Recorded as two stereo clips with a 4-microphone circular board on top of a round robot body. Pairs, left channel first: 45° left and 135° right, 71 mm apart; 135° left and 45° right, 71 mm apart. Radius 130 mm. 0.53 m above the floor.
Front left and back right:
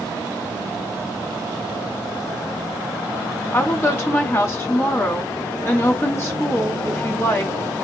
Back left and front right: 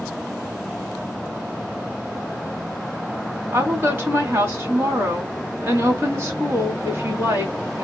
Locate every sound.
3.5 s a woman speaking: straight ahead, 1.7 m